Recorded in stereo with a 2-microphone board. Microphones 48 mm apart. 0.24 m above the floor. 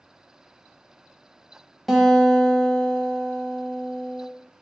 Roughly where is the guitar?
Centre.